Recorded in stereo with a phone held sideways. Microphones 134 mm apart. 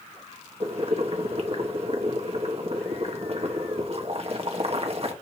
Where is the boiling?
50° right (ahead or behind), 1.2 m.